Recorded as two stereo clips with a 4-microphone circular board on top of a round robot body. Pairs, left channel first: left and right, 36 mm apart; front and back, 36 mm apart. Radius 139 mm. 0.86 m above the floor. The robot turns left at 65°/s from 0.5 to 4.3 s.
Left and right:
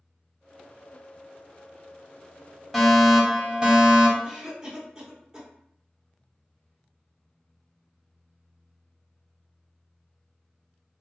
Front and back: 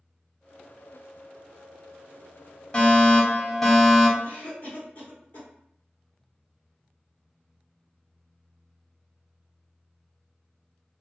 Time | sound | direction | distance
2.7 | a fire alarm | straight ahead | 1.4 m
4.2 | a cough | 20° right | 1.3 m